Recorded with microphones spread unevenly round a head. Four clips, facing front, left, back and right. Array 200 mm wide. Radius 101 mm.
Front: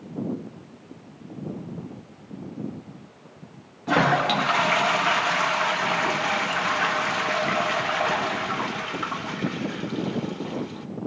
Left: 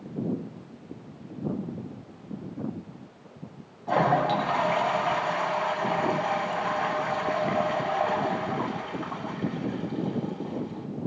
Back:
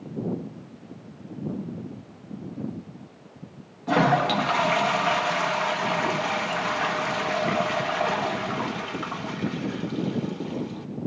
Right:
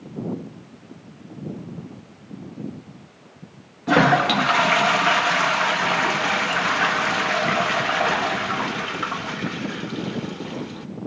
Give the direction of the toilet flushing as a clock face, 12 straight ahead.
3 o'clock.